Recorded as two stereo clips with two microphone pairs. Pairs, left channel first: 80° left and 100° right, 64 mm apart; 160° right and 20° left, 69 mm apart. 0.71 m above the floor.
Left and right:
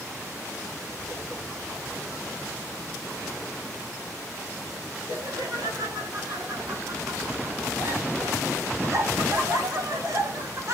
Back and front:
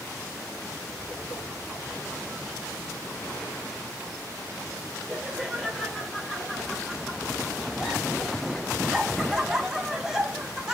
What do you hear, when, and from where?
5.1 s laughter: 80° right, 7.5 m; by 10.7 s 65° right, 3.5 m